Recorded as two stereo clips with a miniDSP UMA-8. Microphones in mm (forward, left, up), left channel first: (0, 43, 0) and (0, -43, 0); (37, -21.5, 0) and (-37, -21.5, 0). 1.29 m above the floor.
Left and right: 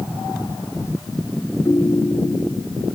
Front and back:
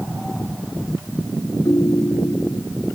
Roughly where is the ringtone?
Ahead left.